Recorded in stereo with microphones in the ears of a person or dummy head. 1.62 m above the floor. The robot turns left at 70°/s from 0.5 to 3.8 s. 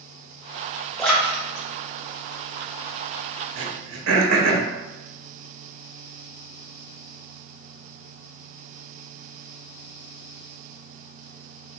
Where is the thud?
No thud in this recording.